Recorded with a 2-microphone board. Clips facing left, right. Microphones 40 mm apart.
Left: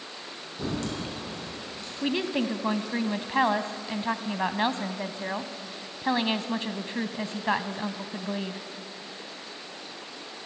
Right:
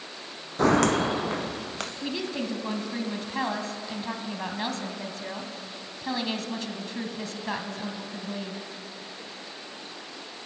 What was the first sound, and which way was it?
Footsteps, 75° right (ahead or behind).